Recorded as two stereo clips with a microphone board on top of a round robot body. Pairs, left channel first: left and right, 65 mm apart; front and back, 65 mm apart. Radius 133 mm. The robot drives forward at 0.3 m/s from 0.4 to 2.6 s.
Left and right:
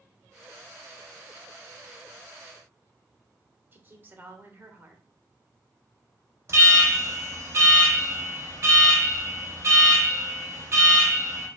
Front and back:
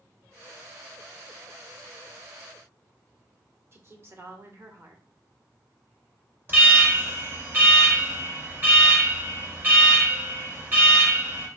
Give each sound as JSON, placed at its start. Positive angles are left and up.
{"t": 3.7, "sound": "a woman speaking", "azimuth_deg": -140, "distance_m": 1.5}
{"t": 6.5, "sound": "an alarm", "azimuth_deg": -125, "distance_m": 2.5}